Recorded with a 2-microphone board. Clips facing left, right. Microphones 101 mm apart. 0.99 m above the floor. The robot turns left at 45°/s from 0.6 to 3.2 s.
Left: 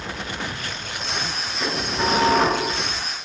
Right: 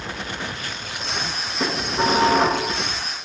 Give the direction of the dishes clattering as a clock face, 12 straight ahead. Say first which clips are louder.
Right 2 dB; 5 o'clock.